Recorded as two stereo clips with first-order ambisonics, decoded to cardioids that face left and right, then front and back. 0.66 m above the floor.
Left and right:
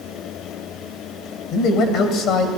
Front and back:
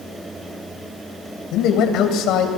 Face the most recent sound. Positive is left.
turn(degrees=40)